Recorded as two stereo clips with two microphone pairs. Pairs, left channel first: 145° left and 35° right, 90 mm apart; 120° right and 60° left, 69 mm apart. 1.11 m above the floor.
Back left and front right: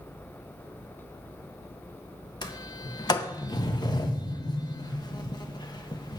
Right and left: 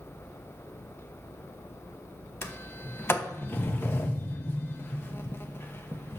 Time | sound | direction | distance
2.4 | a sliding door | straight behind | 0.8 m